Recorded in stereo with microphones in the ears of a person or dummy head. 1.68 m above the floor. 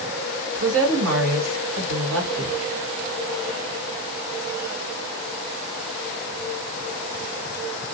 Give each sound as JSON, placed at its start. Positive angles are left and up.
{"t": 0.6, "sound": "a woman speaking", "side_deg": -65, "distance_m": 1.5}